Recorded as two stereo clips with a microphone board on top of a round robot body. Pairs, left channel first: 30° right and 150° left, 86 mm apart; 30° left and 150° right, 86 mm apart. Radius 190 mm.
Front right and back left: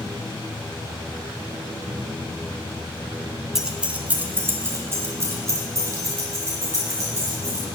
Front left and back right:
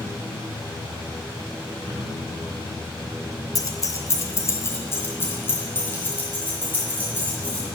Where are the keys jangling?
65° left, 0.7 m; by 7.7 s 100° left, 2.5 m.